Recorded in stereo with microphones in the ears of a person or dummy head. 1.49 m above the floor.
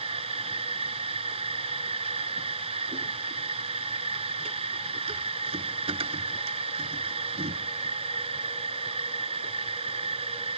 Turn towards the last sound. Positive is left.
turn(degrees=-35)  # may be behind; listen again after turning